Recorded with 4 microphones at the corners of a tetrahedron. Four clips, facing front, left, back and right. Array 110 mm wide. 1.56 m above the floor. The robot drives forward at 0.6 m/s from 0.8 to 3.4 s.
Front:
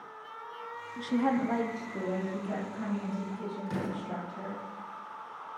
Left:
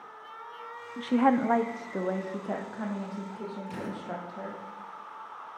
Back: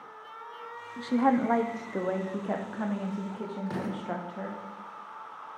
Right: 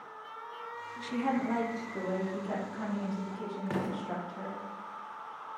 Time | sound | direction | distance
1.0 | a woman speaking | 105° left | 0.6 m
3.7 | an explosion | 115° right | 1.7 m